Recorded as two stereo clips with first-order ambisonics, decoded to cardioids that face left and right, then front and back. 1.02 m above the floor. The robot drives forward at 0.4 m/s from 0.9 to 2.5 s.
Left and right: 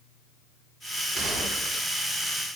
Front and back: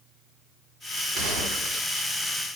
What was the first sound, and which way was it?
A gunshot, 160° right.